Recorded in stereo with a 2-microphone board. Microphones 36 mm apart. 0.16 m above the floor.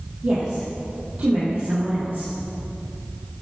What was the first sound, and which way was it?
A woman speaking, 40° right (ahead or behind).